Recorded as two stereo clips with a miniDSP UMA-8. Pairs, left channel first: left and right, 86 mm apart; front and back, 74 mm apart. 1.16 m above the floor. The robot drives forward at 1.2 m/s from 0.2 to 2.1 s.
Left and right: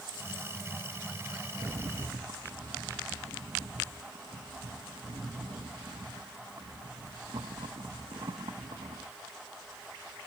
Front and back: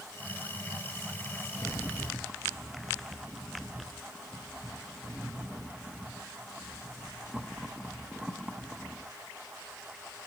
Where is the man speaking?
No man speaking in this recording.